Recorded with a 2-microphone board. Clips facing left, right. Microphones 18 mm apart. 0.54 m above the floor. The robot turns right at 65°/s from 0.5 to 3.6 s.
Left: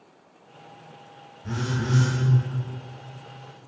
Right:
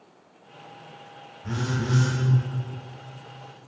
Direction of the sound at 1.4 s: 15° right.